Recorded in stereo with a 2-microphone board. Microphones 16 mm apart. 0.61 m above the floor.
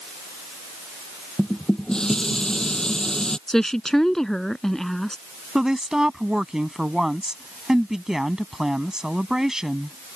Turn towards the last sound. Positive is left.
turn(degrees=-45)  # may be behind; listen again after turning